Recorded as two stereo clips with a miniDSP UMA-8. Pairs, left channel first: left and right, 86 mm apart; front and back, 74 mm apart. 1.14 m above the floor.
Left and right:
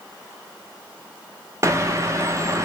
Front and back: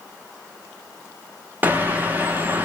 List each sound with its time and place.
1.6 s a bird: 125° right, 0.7 m